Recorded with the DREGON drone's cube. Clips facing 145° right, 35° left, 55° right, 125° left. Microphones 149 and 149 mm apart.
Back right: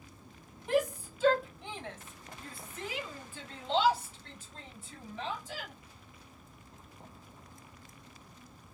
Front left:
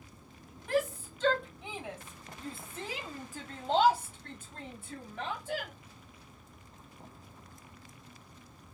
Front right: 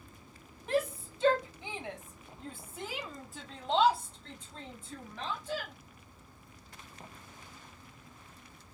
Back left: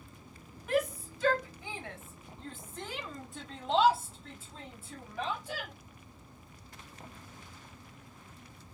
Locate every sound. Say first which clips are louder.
0.7 s a shout: back right 1 dB, back left 1 dB; 90° right, 1.4 m; by 5.7 s 45° left, 2.5 m